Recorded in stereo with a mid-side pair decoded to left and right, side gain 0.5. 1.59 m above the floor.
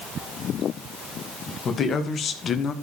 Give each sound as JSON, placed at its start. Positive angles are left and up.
{"t": 1.6, "sound": "a man speaking", "azimuth_deg": 50, "distance_m": 2.5}